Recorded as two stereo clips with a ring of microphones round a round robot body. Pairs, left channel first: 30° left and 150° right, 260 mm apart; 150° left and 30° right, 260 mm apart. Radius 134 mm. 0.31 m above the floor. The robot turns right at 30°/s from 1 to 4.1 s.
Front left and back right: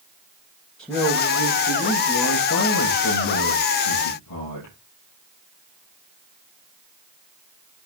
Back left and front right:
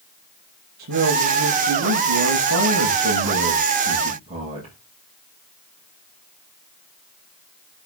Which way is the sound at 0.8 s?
60° right.